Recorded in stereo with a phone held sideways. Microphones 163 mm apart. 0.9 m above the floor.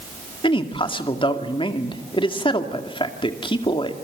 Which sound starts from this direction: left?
A man speaking, at 0.4 s.